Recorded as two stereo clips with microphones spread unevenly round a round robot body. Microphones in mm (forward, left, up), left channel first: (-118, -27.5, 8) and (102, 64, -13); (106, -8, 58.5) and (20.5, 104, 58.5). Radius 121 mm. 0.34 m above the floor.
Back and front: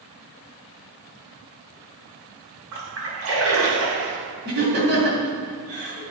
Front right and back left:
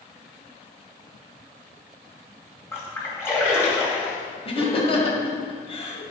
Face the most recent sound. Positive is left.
turn(degrees=-15)